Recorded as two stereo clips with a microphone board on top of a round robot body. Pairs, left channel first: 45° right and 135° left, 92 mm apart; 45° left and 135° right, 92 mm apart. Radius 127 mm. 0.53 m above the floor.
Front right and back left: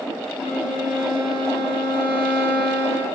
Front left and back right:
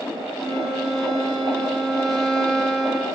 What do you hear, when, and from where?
0.4 s a violin: 45° right, 6 m